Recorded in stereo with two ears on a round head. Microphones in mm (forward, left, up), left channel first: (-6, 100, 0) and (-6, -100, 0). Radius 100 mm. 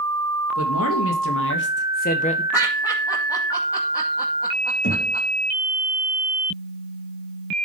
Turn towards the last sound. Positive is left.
turn(degrees=55)  # may be behind; listen again after turning